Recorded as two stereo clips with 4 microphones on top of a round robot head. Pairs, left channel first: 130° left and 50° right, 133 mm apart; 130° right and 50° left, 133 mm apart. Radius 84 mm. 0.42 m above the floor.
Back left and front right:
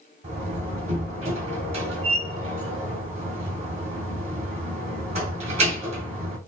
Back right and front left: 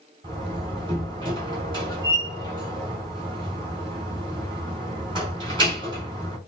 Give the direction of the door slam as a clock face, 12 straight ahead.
12 o'clock.